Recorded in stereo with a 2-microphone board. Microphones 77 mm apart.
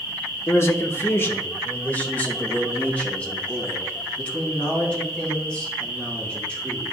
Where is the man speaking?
35° left (ahead or behind), 0.9 m; by 6.8 s 15° left (ahead or behind), 6 m.